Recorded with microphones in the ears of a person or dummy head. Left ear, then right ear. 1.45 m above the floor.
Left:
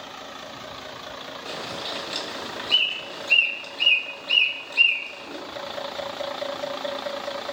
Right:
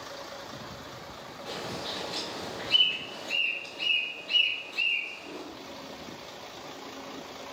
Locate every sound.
1.4 s a bird: 40° left (ahead or behind), 1.7 m